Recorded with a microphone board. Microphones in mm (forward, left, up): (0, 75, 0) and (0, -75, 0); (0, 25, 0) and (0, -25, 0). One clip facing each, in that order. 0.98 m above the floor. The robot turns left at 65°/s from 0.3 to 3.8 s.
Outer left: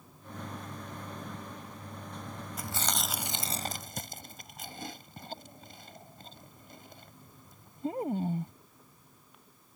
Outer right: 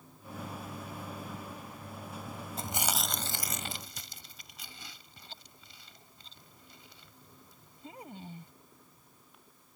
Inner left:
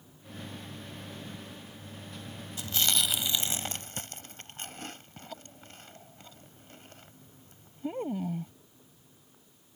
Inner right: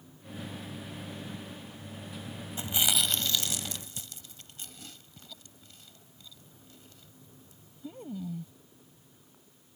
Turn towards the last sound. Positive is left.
turn(degrees=50)  # may be behind; listen again after turning